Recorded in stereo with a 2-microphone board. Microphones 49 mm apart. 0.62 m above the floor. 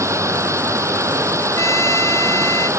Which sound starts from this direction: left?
A trumpet, at 1.6 s.